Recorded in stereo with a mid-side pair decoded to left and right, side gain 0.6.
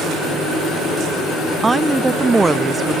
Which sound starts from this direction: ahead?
A woman speaking, at 1.6 s.